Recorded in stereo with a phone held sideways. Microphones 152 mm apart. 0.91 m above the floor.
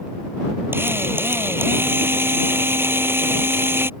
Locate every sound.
0.7 s a drill: 15° right (ahead or behind)